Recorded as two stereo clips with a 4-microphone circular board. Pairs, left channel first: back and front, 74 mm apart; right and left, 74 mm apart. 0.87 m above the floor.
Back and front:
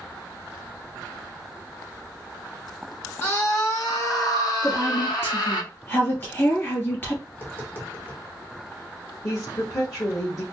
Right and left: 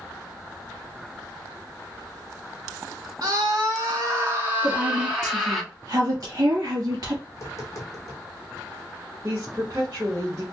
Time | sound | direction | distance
3.2 | a scream | 125° left | 1.9 m
4.6 | a woman speaking | 125° left | 2 m
7.3 | tapping | 120° right | 1.3 m
9.2 | a woman speaking | 145° left | 1.3 m